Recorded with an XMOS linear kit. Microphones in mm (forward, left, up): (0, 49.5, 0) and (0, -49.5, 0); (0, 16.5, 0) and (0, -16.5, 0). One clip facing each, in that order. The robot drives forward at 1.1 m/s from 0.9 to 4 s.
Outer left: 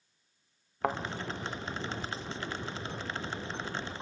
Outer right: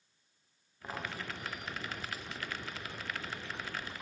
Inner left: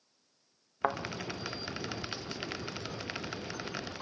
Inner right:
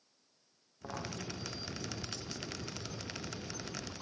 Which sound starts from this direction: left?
A thud, at 0.8 s.